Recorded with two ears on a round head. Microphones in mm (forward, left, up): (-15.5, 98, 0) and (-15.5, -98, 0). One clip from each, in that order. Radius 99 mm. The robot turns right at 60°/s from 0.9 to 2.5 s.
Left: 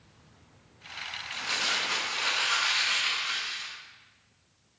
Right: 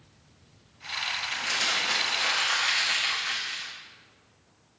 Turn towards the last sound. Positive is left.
turn(degrees=-15)